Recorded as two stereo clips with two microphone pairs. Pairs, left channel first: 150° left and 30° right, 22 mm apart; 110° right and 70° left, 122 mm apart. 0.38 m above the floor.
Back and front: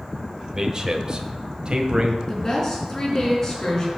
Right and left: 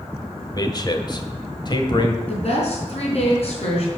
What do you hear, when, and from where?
0.5 s a man speaking: 75° right, 1.2 m; by 2.2 s 65° right, 1.8 m
2.3 s a woman speaking: 140° right, 3.5 m